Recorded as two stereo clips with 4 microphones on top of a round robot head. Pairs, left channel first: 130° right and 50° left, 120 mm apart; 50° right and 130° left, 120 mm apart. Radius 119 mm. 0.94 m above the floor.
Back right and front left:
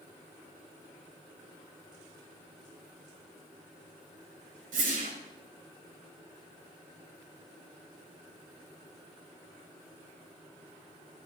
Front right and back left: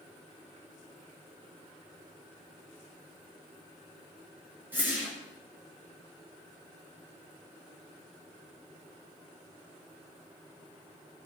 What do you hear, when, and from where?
4.7 s a whoosh: 55° left, 7 m